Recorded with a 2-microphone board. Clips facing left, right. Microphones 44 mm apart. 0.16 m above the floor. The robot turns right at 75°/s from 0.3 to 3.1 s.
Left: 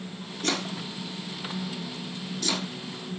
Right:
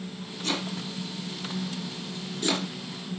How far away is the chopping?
About 4.5 m.